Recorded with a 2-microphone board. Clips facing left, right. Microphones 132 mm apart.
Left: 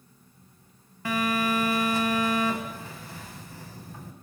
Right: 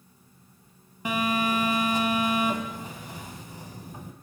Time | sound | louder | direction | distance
1.1 | a phone buzzing | even | 20° right (ahead or behind) | 0.5 m